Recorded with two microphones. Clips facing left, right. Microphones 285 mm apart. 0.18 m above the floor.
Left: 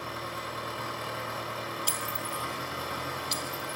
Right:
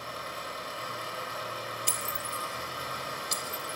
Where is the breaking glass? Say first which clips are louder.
Left 3 dB; 60° right (ahead or behind), 1.8 m.